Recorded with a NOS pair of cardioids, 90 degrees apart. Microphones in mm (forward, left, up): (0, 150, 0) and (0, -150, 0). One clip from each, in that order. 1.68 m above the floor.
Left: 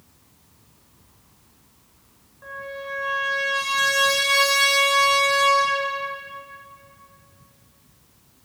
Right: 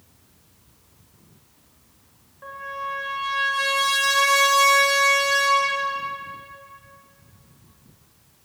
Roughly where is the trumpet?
Ahead.